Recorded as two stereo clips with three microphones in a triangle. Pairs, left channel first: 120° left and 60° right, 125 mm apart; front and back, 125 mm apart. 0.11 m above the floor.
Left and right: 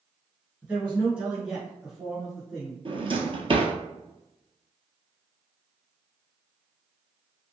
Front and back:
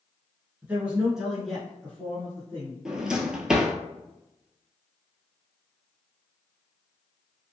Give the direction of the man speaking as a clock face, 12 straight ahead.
4 o'clock.